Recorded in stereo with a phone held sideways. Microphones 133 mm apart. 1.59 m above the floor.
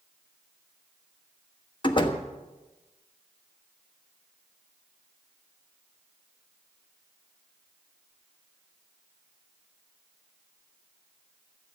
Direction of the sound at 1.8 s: 35° left (ahead or behind).